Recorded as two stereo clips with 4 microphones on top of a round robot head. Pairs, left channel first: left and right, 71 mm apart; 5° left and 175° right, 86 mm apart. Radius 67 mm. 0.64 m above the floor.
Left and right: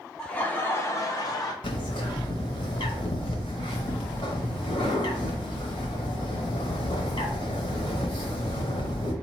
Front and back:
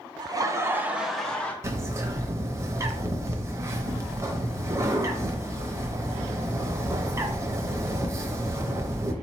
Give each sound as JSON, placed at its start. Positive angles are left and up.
{"t": 0.2, "sound": "laughter", "azimuth_deg": 165, "distance_m": 0.9}
{"t": 1.6, "sound": "a bird", "azimuth_deg": 130, "distance_m": 0.6}